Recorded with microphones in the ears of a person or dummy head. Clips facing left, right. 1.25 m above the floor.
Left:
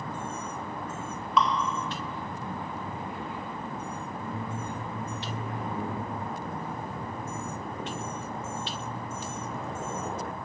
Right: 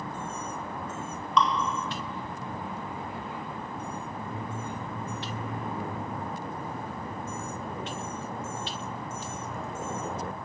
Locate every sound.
1.4 s dripping: 5° left (ahead or behind), 1.0 m